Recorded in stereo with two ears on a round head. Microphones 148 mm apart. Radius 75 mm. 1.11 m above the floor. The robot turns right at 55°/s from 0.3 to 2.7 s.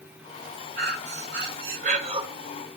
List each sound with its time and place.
0.8 s breathing: 110° right, 1.7 m; by 2.2 s 30° right, 1.7 m